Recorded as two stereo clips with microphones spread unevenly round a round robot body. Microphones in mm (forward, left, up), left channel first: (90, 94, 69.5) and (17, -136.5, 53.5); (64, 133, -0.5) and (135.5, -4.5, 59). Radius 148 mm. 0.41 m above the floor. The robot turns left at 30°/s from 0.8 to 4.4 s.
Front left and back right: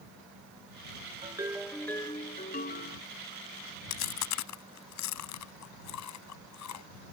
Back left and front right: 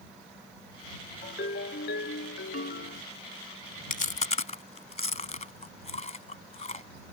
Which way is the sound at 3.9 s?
90° left.